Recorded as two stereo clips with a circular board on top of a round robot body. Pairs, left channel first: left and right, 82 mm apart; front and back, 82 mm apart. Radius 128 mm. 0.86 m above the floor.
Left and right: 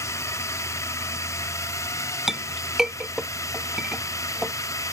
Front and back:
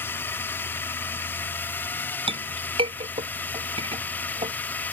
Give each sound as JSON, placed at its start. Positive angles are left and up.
{"t": 0.0, "sound": "a drone", "azimuth_deg": 55}
{"t": 2.3, "sound": "a clink", "azimuth_deg": -175}